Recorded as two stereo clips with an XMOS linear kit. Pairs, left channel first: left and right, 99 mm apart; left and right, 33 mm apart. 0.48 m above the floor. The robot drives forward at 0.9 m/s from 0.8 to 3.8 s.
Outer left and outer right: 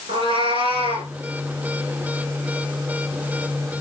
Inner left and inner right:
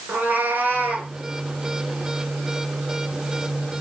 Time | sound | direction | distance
0.1 | a cat meowing | 65° right (ahead or behind) | 3.5 m